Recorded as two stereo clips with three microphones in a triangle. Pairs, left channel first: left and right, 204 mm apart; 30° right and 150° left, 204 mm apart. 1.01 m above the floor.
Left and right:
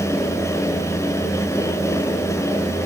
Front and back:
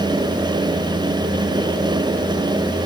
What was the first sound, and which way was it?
Only background noise.